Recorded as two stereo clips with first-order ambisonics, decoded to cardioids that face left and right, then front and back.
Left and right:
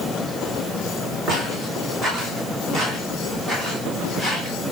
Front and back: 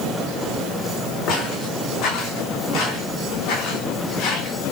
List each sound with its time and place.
1.3 s footsteps: 30° right, 4.5 m; by 4.5 s 15° right, 8 m